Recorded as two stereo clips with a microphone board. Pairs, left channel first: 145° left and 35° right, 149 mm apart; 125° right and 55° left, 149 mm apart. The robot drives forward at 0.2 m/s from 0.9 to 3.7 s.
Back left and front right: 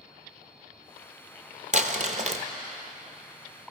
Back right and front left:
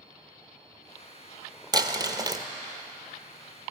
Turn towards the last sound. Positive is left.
turn(degrees=-10)